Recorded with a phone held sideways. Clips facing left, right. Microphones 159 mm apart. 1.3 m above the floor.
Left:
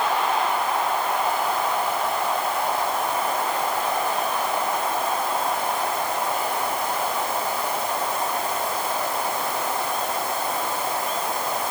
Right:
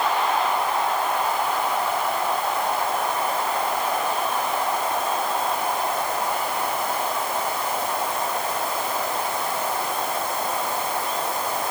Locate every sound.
Only background noise.